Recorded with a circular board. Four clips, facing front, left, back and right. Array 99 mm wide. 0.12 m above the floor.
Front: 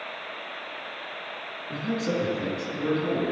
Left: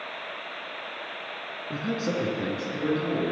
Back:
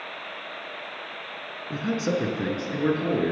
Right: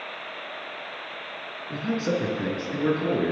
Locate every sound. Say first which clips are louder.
1.7 s a man speaking: right 2 dB, back 2 dB; 155° left, 1.3 m; by 3.3 s 140° right, 1.6 m